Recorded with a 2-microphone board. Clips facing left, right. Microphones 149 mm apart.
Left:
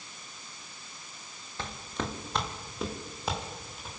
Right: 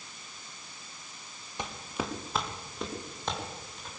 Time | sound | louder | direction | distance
1.6 | footsteps | even | 15° right (ahead or behind) | 2 m